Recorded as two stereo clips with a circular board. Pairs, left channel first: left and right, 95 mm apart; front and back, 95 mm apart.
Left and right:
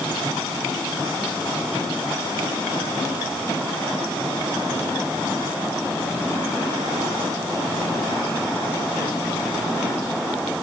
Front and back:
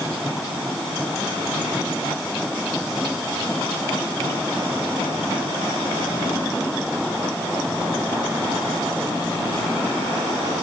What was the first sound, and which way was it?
Only background noise.